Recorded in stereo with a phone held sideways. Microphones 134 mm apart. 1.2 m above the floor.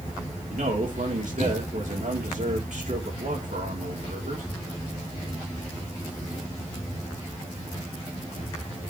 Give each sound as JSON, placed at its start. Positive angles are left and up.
{"t": 0.5, "sound": "a man speaking", "side_deg": -70, "distance_m": 3.5}